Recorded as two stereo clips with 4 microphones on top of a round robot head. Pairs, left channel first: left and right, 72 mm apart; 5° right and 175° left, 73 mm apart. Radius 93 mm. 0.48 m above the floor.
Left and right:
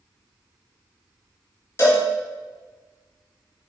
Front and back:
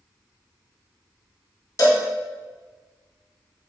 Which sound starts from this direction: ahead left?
A cowbell, at 1.8 s.